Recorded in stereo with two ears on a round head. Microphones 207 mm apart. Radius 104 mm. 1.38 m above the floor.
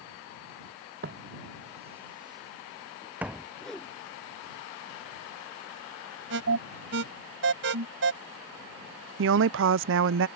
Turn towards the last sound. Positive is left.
turn(degrees=-55)  # may be behind; listen again after turning